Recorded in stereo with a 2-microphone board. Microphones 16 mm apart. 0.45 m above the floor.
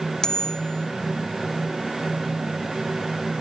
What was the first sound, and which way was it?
A bicycle bell, 45° left (ahead or behind).